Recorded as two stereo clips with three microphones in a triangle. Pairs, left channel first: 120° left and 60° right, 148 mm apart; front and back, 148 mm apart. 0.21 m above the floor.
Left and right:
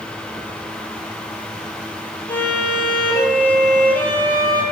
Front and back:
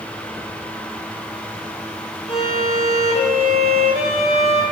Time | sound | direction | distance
2.3 | a violin | 40° left | 1.1 m